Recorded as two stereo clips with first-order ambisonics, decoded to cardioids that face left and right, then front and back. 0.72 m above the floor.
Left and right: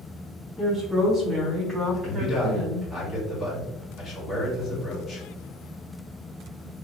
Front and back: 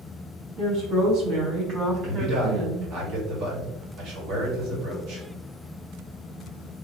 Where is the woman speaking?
170° left, 1.6 m; by 2.9 s 150° right, 2.5 m.